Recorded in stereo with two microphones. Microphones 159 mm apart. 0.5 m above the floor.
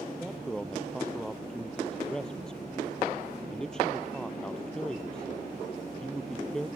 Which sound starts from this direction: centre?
A man speaking, at 0.1 s.